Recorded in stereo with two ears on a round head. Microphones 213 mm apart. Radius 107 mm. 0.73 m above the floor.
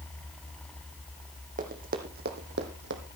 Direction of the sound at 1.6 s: 35° right (ahead or behind).